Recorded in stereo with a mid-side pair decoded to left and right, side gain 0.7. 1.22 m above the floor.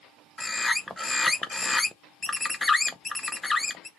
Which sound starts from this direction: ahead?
A bird, at 0.4 s.